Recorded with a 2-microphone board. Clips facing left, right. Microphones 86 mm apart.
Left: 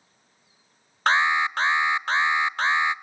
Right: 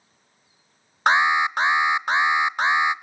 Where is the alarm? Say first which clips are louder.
Right 3 dB; 15° right (ahead or behind), 0.5 m.